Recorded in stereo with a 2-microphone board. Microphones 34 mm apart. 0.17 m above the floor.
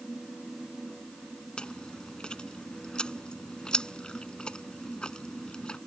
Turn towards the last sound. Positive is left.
turn(degrees=25)  # may be behind; listen again after turning